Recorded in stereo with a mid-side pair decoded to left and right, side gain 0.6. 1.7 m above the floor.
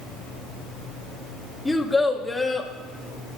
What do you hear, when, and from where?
1.6 s a child speaking: straight ahead, 1.6 m